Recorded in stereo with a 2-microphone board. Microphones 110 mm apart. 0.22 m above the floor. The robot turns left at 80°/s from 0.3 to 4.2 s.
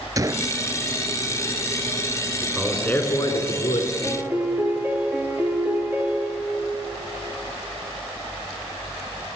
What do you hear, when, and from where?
0.2 s a gunshot: 35° right (ahead or behind), 0.6 m; by 0.6 s 15° right (ahead or behind), 0.6 m
2.4 s a man speaking: 160° right, 3 m; by 3.9 s 80° left, 3 m
4.0 s a piano: 5° right (ahead or behind), 2.5 m; by 6.6 s 15° right (ahead or behind), 2.5 m